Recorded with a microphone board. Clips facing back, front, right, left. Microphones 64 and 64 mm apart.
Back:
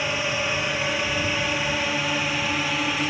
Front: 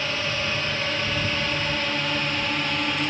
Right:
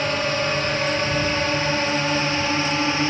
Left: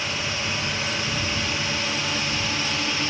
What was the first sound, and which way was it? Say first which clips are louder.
A drone: back 2 dB, right 6 dB; 110° right.